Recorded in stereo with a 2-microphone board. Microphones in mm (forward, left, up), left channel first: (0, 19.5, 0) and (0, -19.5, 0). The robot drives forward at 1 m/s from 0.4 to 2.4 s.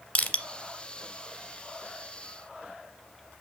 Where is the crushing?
35° left (ahead or behind), 0.9 m.